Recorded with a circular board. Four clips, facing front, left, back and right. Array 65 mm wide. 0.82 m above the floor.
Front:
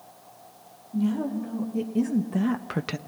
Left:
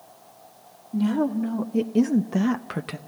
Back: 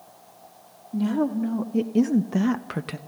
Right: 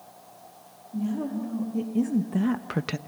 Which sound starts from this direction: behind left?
A woman speaking, at 0.9 s.